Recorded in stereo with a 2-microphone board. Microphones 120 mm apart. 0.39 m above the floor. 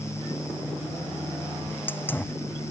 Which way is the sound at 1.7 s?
15° left (ahead or behind).